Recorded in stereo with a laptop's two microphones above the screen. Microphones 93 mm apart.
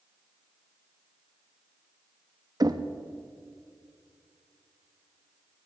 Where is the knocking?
45° right (ahead or behind), 0.9 m.